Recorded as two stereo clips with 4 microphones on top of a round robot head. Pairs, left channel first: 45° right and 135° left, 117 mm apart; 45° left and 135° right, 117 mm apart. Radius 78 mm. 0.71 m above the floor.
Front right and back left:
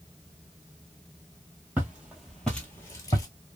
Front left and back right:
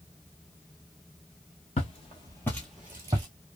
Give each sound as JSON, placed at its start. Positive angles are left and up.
{"t": 1.8, "sound": "footsteps", "azimuth_deg": 65, "distance_m": 0.9}